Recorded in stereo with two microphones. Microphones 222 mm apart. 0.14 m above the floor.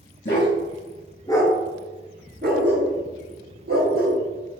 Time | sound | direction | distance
0.2 | a dog barking | 50° left (ahead or behind) | 1.3 m